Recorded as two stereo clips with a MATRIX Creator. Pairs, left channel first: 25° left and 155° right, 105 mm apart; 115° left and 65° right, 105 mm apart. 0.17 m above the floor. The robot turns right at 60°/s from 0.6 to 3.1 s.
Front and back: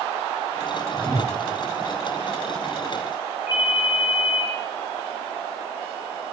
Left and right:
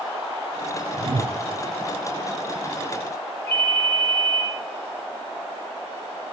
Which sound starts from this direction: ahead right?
A whoosh, at 1.0 s.